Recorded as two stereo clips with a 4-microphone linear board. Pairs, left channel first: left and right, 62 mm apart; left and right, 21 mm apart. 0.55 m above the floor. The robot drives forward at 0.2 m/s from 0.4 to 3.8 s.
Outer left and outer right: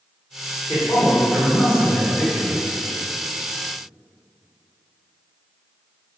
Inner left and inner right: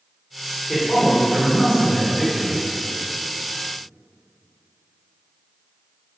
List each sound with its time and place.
0.7 s a man speaking: 20° left (ahead or behind), 0.8 m